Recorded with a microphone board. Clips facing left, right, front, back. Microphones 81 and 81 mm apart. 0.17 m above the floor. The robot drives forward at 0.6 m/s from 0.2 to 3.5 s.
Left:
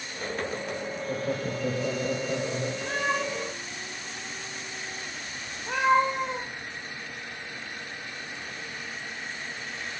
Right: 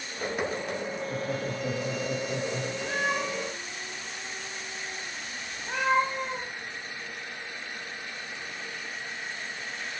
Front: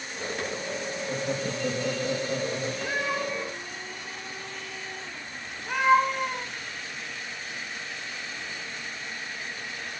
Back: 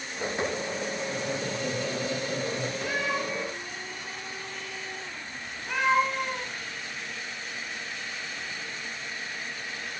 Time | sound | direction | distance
1.1 | laughter | 70° left | 6 m
2.9 | a cat meowing | 75° left | 6.5 m